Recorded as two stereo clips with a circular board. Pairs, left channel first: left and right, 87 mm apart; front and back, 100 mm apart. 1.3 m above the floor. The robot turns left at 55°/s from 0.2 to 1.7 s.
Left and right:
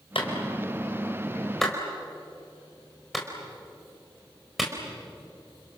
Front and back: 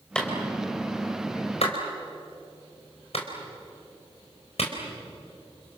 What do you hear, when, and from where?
0.1 s a clap: 80° left, 4 m; by 5.8 s straight ahead, 4 m